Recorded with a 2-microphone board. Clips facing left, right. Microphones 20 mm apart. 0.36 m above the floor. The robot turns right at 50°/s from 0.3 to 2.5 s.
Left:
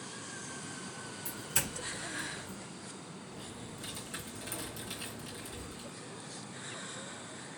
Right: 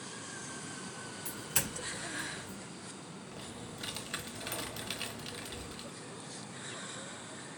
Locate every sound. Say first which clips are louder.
1.2 s a doorbell: even; 25° right (ahead or behind), 1.6 m; by 2.6 s centre (ahead or behind), 1.6 m
3.3 s typing on a keyboard: right 2 dB; 45° right (ahead or behind), 0.9 m